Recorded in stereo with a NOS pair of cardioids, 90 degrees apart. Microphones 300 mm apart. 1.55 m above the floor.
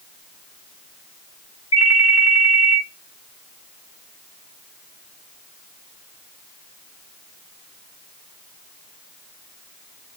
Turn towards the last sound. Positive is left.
turn(degrees=50)